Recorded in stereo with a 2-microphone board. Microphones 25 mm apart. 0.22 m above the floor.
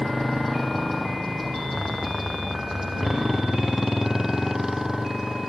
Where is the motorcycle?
10° left (ahead or behind); by 5.5 s 20° right (ahead or behind).